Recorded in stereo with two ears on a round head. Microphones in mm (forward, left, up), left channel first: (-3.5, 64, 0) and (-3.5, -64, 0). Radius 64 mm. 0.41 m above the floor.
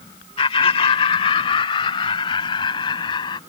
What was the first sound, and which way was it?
Laughter, 40° left (ahead or behind).